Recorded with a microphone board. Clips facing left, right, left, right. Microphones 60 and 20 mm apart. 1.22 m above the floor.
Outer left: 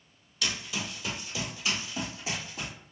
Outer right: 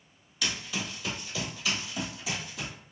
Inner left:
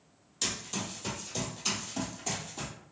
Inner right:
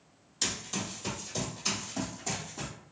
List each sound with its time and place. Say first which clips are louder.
0.4 s running footsteps: even, inner right 1 dB; centre (ahead or behind), 1.7 m; by 2.7 s 40° left (ahead or behind), 1.7 m